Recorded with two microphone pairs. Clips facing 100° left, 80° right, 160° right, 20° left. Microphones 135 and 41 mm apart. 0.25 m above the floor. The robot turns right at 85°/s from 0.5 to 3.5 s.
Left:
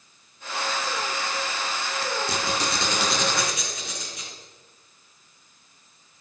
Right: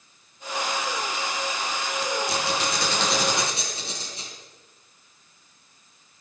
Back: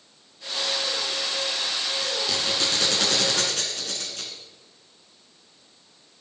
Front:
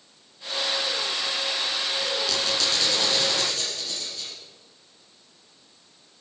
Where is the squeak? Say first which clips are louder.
Right 1 dB, even; 120° left, 2 m; by 4.3 s 135° right, 2 m.